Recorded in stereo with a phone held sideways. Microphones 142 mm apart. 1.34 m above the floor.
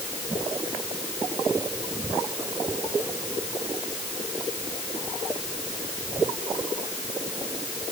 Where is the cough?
I don't hear a cough.